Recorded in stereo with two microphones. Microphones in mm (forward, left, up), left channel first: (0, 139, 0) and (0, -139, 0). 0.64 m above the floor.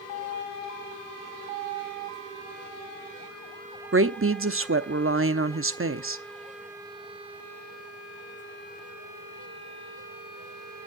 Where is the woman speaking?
45° right (ahead or behind), 0.8 m.